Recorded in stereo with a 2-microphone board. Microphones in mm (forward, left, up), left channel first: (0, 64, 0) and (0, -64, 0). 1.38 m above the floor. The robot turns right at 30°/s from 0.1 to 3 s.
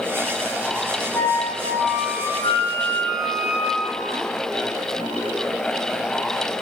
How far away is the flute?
About 3.5 m.